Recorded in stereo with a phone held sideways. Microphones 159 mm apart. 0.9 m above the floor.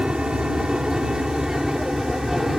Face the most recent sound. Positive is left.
turn(degrees=-5)  # may be behind; listen again after turning